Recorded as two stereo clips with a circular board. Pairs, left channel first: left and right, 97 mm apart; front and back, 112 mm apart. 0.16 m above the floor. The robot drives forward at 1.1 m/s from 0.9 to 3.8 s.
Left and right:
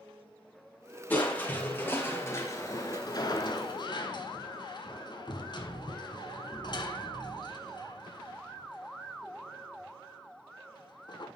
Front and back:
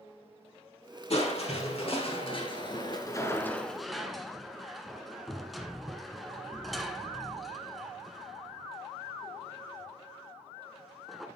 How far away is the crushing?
About 3 m.